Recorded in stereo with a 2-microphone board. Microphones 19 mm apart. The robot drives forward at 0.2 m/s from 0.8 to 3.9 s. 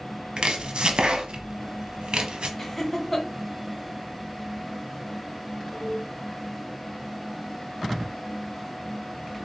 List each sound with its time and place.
0.4 s chopping: 70° right (ahead or behind), 0.7 m; by 2.5 s 65° right (ahead or behind), 0.7 m
2.6 s laughter: 10° left (ahead or behind), 1.4 m